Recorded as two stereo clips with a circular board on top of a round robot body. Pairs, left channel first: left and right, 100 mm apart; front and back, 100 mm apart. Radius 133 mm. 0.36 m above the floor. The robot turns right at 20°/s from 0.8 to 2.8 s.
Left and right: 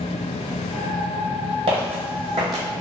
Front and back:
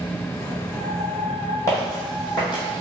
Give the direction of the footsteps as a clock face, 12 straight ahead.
2 o'clock.